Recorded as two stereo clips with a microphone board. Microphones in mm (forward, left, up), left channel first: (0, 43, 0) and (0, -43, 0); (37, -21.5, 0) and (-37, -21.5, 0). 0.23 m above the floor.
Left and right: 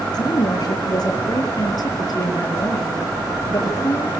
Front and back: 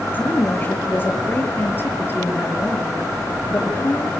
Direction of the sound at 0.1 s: 65° left.